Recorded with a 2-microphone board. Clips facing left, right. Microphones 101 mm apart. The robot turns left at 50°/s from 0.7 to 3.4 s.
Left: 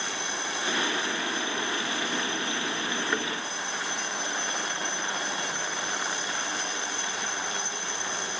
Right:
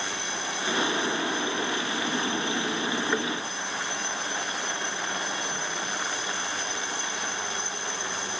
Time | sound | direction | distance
3.1 | a thud | centre (ahead or behind) | 2.5 m